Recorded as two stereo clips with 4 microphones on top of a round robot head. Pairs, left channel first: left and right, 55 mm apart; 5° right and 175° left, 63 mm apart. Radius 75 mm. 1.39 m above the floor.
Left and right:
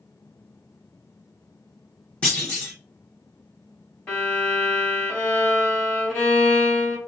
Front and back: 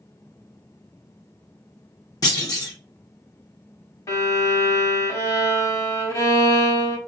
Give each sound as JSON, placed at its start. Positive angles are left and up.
{"t": 2.2, "sound": "a clunk", "azimuth_deg": 20, "distance_m": 1.1}
{"t": 4.1, "sound": "a violin", "azimuth_deg": 15, "distance_m": 3.0}